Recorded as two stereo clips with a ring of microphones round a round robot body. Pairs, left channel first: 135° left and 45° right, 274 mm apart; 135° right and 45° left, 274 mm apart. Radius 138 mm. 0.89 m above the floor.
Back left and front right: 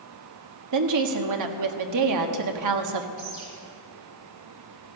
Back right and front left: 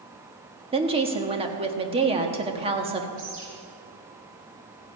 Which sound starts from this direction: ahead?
A bird, at 3.2 s.